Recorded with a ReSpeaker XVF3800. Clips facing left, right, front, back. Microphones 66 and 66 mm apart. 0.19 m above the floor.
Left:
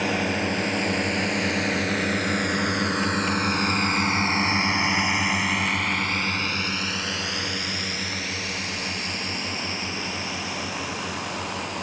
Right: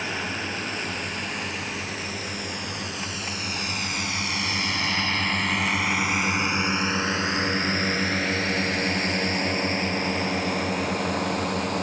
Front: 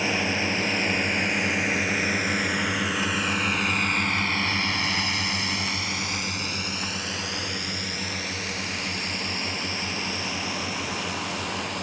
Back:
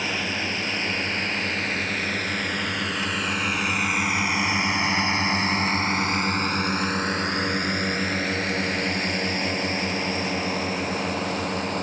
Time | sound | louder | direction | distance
0.0 | a drone | left 5 dB, front 2 dB | 70° left | ?